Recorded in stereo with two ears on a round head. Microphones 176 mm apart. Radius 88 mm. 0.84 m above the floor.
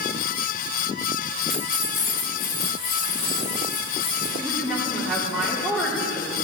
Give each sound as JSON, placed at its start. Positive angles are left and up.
{"t": 1.5, "sound": "keys jangling", "side_deg": 0, "distance_m": 1.0}
{"t": 4.4, "sound": "a woman speaking", "side_deg": 0, "distance_m": 2.5}